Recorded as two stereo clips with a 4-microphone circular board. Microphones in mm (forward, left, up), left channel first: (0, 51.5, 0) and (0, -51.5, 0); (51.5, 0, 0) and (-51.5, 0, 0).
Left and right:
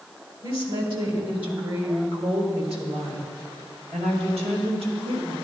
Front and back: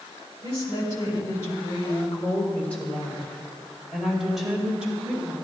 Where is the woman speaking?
50° right, 3 m; by 5.3 s 100° right, 3.5 m.